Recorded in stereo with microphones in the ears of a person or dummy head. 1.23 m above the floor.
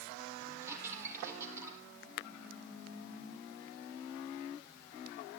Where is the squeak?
10° right (ahead or behind), 5 m.